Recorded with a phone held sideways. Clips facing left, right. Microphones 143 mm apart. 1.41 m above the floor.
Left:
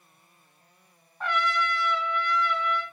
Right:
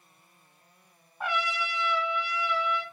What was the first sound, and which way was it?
A trumpet, 10° right (ahead or behind).